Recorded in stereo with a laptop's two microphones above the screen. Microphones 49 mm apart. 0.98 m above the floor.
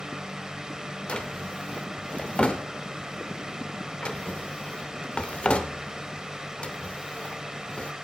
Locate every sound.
0.0 s a fan: 15° right (ahead or behind), 1.2 m
1.1 s a drawer: 25° left (ahead or behind), 0.8 m